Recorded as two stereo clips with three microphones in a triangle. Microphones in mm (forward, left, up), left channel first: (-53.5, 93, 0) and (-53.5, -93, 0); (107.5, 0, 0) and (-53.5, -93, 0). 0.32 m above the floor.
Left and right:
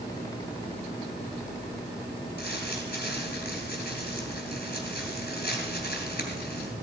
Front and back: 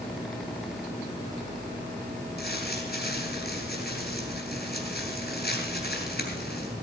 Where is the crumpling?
55° left, 3 m.